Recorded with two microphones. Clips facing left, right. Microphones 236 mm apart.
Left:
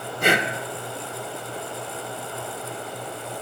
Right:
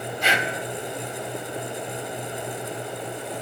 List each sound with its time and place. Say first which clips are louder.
0.2 s breathing: left 6 dB; 55° left (ahead or behind), 1.5 m